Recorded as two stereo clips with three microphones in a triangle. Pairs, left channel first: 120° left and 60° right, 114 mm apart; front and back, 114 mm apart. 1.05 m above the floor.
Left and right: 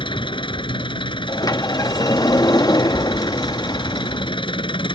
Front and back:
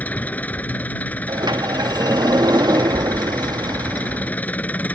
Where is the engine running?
75° left.